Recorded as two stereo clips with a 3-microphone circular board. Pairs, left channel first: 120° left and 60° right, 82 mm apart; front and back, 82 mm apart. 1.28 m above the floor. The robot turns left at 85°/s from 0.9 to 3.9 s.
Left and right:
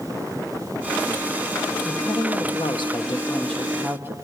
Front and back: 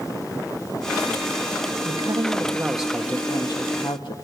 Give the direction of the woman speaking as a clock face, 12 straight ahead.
6 o'clock.